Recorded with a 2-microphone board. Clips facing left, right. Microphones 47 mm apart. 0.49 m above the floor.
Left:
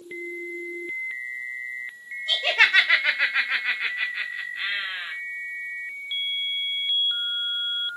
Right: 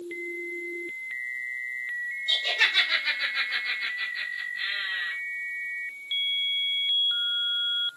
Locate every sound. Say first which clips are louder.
2.3 s laughter: left 6 dB; 60° left (ahead or behind), 1.6 m; by 5.1 s 35° left (ahead or behind), 1.6 m